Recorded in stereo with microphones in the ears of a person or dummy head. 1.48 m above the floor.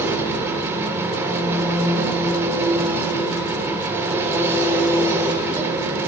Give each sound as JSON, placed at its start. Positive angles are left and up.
{"t": 0.0, "sound": "an engine running", "side_deg": -20, "distance_m": 3.0}